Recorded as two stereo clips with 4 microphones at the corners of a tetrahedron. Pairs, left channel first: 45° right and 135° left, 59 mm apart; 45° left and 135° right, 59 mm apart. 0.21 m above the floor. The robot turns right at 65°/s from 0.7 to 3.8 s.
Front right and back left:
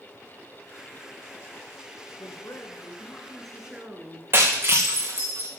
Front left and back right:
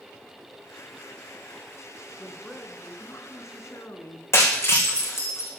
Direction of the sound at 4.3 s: 85° left.